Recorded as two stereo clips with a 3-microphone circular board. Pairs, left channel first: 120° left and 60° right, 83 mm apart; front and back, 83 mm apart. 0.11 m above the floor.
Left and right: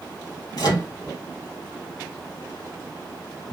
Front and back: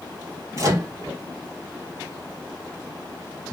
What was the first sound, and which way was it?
A microwave, 150° left.